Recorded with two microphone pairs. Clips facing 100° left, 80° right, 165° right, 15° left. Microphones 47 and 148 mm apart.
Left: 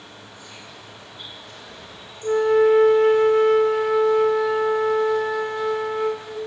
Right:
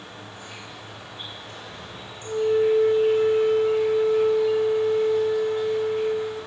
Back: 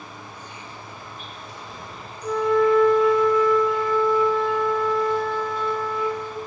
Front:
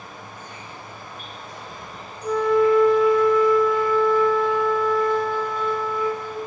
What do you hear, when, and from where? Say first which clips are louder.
0.0 s an insect: right 2 dB, even; 25° right, 6 m
2.2 s a flute: left 4 dB, front 1 dB; 105° left, 1.5 m